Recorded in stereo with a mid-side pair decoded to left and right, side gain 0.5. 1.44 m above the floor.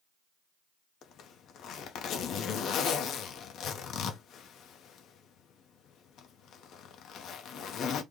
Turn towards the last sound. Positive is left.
turn(degrees=65)